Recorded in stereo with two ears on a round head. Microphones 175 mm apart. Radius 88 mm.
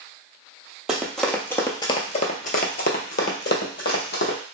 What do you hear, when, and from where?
0.9 s running footsteps: 5° right (ahead or behind), 0.9 m; by 4.4 s 55° left (ahead or behind), 1.4 m